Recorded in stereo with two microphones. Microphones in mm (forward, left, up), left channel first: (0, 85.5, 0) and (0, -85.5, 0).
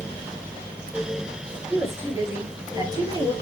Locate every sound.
1.7 s a woman speaking: 15° right (ahead or behind), 6 m; by 3.3 s 30° right (ahead or behind), 5.5 m